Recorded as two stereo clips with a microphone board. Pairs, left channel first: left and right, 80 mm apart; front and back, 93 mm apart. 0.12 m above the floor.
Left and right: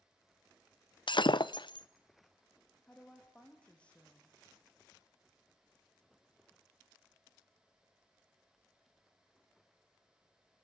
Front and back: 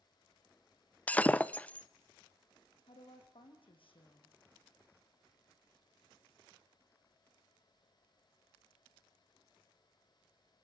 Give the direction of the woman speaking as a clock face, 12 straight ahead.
12 o'clock.